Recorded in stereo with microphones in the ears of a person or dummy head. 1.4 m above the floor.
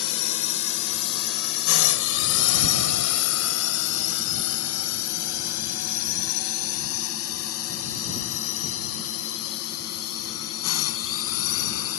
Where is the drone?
65° left (ahead or behind); by 12.0 s 80° left.